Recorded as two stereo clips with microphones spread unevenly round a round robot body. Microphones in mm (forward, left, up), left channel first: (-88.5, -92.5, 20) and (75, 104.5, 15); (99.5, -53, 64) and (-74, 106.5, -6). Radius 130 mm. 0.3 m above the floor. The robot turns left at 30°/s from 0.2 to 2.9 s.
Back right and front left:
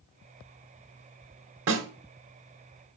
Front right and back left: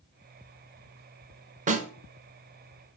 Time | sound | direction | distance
1.7 | a snare drum | 90° left | 1.5 m